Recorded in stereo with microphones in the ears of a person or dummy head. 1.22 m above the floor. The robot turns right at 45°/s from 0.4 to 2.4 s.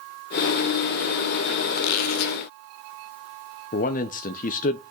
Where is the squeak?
70° left (ahead or behind), 1.0 m; by 2.4 s 75° left (ahead or behind), 1.0 m.